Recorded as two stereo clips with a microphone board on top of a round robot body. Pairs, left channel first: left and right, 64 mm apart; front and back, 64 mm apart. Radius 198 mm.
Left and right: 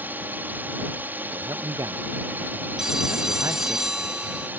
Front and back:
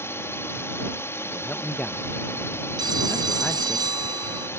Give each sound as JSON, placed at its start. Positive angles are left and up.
{"t": 0.0, "sound": "a drone", "azimuth_deg": -35}
{"t": 1.3, "sound": "a man speaking", "azimuth_deg": -70}
{"t": 2.8, "sound": "a phone ringing", "azimuth_deg": -175}